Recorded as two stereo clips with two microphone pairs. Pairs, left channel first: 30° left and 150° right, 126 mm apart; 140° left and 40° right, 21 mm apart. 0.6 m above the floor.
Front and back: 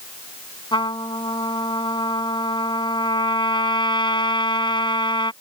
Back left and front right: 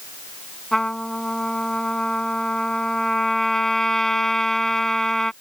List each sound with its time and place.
0.7 s a trumpet: 80° left